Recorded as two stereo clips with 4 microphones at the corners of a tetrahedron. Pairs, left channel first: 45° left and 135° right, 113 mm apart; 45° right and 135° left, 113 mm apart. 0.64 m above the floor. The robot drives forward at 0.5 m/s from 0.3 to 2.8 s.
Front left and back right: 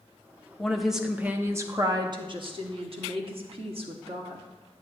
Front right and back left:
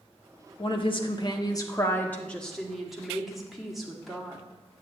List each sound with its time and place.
0.6 s a woman speaking: 40° right, 0.9 m; by 4.4 s 140° right, 0.9 m